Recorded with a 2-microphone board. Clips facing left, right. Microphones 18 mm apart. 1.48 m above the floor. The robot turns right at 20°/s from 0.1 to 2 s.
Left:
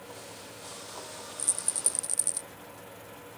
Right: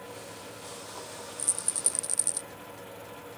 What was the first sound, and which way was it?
A rattle, 5° left (ahead or behind).